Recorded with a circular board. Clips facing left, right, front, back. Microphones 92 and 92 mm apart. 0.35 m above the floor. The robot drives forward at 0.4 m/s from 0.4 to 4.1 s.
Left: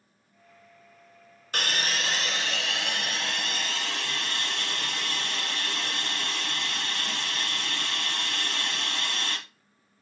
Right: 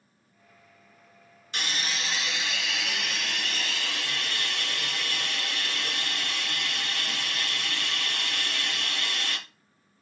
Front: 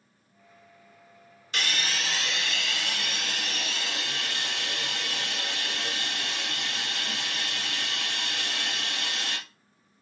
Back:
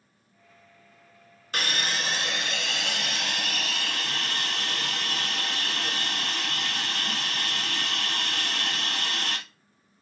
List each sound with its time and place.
1.5 s a hiss: 130° left, 1.0 m; by 9.4 s 155° left, 1.8 m